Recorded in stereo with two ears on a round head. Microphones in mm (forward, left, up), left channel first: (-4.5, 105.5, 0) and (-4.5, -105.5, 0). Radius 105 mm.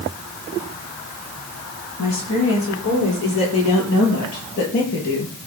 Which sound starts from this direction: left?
A woman speaking, at 2.0 s.